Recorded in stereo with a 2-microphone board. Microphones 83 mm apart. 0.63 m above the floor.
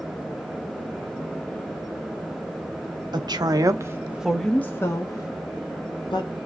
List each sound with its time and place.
3.1 s a woman speaking: 60° right (ahead or behind), 1.1 m; by 6.5 s 65° left (ahead or behind), 1.8 m